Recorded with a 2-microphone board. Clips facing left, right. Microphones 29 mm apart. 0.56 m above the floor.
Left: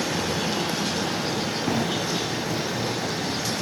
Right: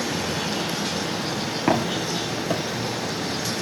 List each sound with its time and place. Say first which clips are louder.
1.7 s footsteps: right 5 dB; 45° right (ahead or behind), 4 m; by 3.6 s 65° right (ahead or behind), 5.5 m